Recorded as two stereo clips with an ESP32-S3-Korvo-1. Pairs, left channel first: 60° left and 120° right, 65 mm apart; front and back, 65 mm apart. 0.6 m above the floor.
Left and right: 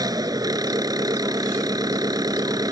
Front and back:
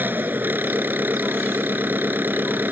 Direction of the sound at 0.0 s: 120° right.